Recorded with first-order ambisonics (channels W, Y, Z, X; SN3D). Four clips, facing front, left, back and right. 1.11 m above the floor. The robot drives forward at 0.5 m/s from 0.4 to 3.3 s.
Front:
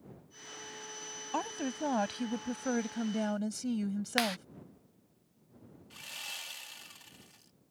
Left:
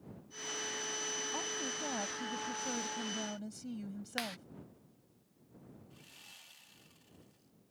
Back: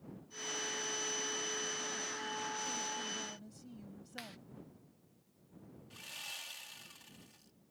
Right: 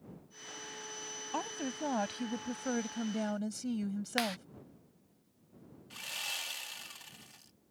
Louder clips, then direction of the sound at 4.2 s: Right 5 dB, front 18 dB; 15° right.